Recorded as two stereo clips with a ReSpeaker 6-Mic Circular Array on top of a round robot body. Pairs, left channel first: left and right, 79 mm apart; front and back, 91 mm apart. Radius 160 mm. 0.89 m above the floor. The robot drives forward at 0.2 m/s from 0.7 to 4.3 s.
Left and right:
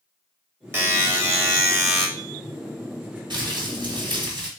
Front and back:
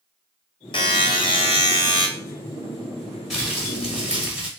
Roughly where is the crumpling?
Right.